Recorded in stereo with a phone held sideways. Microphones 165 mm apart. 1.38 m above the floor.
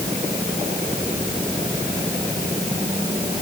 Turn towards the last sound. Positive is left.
No sound to turn to.